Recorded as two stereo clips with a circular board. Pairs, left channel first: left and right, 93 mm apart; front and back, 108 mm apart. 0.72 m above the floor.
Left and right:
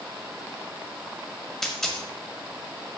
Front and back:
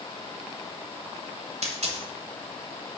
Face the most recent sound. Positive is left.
turn(degrees=175)